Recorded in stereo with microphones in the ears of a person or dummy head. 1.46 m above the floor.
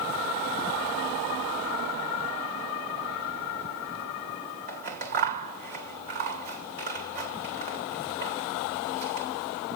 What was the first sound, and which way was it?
Scissors, 50° right (ahead or behind).